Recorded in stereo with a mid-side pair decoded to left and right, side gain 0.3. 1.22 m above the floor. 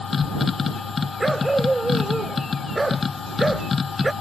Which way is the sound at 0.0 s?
55° left.